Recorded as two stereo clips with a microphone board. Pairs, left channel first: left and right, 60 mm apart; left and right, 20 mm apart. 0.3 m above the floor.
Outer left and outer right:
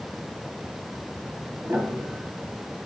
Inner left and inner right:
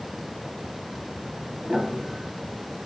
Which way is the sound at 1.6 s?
45° right (ahead or behind).